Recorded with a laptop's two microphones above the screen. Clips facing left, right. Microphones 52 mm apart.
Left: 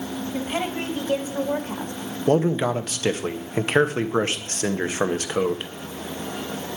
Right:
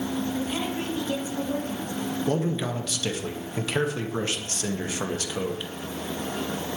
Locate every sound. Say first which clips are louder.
0.3 s a woman speaking: left 2 dB; 35° left (ahead or behind), 2 m; by 1.9 s 55° left (ahead or behind), 1.6 m
2.3 s a man speaking: left 9 dB; 40° left (ahead or behind), 0.8 m